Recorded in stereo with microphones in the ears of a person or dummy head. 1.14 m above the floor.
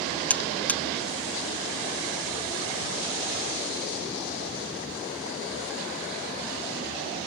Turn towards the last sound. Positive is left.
turn(degrees=10)  # may be behind; listen again after turning